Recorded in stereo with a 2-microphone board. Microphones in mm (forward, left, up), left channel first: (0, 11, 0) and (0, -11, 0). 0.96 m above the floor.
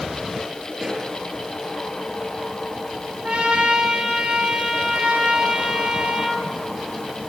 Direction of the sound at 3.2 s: 65° right (ahead or behind).